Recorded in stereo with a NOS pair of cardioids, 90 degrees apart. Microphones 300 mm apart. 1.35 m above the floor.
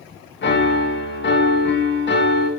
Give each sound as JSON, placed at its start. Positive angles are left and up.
{"t": 0.4, "sound": "a piano", "azimuth_deg": 40, "distance_m": 1.2}